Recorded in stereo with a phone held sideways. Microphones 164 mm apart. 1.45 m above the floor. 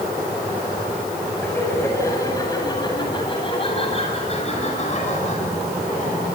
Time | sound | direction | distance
1.4 | laughter | 10° left (ahead or behind) | 8.5 m